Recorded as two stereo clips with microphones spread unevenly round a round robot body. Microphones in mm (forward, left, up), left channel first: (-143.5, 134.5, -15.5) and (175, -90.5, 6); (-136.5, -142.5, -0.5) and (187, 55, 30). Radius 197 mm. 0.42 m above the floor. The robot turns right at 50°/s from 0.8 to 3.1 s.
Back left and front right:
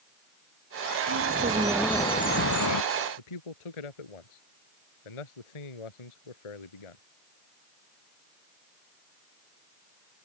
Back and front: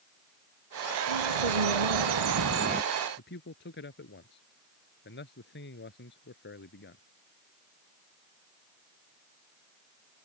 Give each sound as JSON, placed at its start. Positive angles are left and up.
{"t": 1.1, "sound": "a bird", "azimuth_deg": 15}
{"t": 3.2, "sound": "a man speaking", "azimuth_deg": 145}